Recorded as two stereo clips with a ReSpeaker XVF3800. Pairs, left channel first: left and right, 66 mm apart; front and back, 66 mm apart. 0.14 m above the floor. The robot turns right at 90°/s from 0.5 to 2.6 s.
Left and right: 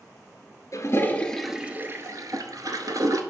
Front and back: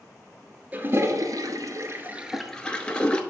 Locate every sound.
0.7 s a toilet flushing: 115° left, 0.8 m; by 3.2 s 75° right, 0.8 m